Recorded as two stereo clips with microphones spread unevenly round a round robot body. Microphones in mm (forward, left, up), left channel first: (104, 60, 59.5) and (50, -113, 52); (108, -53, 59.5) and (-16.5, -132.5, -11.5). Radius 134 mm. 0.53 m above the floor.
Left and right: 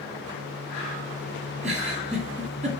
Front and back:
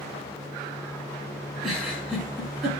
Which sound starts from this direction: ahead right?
A giggle, at 1.6 s.